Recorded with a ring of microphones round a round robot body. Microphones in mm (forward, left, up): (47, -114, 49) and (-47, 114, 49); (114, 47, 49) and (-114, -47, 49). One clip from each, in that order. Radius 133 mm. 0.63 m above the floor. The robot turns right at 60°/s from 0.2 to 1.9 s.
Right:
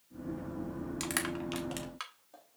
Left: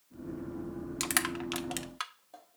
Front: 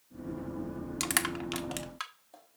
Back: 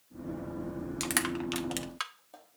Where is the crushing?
85° left, 1.0 m; by 2.6 s 140° left, 1.0 m.